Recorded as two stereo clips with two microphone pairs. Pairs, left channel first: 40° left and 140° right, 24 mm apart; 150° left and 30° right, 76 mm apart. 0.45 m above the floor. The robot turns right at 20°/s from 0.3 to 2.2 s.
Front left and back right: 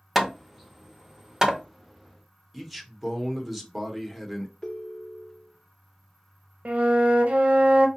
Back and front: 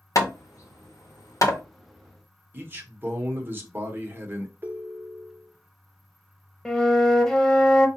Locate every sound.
0.1 s hammering: 135° left, 0.7 m; by 1.6 s 165° left, 0.7 m
2.5 s a man speaking: 65° right, 1.0 m
4.6 s a ringtone: 5° left, 0.6 m
6.7 s a flute: 135° right, 0.7 m